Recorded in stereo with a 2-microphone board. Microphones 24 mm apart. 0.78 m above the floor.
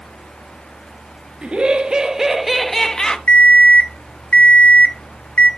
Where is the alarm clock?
70° left (ahead or behind), 1.2 m.